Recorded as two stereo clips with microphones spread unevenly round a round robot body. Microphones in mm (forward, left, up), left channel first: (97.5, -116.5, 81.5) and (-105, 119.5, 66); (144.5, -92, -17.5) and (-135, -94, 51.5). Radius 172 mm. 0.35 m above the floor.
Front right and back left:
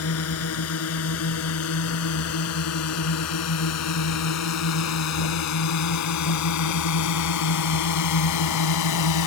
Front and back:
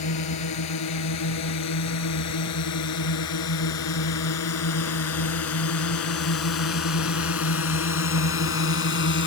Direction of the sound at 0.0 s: 5° right.